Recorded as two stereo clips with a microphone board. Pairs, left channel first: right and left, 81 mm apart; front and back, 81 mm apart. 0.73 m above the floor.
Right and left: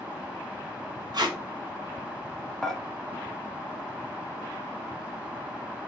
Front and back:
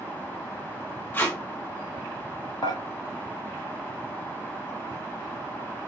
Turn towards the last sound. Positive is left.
turn(degrees=-5)